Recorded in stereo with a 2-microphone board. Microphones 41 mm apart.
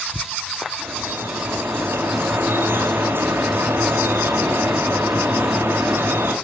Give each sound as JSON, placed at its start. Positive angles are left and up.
{"t": 0.8, "sound": "dripping", "side_deg": -65, "distance_m": 5.0}